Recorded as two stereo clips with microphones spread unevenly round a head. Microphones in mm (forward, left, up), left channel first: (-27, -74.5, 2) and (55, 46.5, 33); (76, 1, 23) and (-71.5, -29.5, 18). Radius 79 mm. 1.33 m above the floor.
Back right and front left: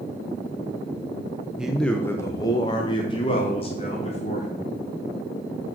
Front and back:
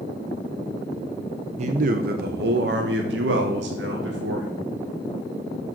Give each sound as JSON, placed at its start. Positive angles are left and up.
{"t": 1.6, "sound": "a man speaking", "azimuth_deg": 140, "distance_m": 0.7}